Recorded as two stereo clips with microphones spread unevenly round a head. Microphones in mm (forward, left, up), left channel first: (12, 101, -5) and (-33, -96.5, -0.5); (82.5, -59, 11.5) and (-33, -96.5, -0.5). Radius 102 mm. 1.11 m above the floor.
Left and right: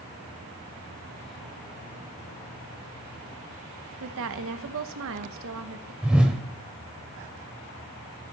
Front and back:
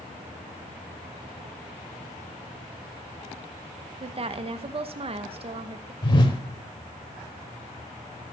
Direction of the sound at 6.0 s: 20° right.